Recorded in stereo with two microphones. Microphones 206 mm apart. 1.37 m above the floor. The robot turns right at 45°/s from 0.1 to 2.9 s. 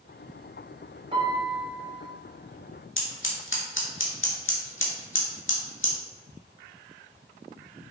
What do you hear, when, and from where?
1.1 s a piano: 155° right, 2.5 m; by 2.0 s 110° right, 2.5 m
3.0 s scissors: 75° left (ahead or behind), 2.0 m